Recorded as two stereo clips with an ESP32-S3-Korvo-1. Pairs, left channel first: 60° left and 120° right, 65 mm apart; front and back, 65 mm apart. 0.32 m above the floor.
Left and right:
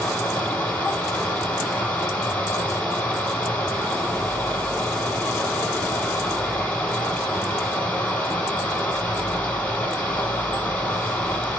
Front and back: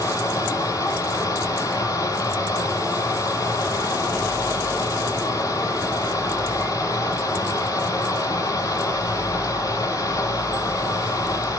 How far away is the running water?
About 8.5 m.